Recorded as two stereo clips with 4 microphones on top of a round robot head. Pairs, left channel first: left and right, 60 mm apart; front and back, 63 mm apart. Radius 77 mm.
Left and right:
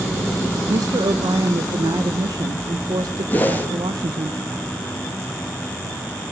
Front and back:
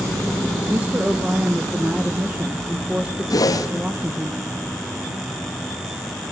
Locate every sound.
0.7 s a woman speaking: 105° right, 0.9 m
3.3 s a whoosh: 25° left, 2.5 m